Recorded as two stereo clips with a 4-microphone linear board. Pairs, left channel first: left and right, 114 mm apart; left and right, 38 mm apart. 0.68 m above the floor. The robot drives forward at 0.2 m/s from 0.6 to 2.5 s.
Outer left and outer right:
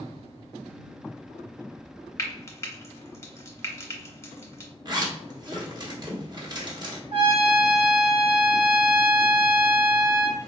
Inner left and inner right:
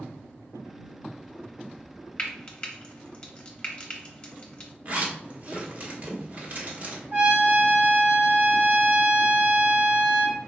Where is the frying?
25° left (ahead or behind), 0.7 m.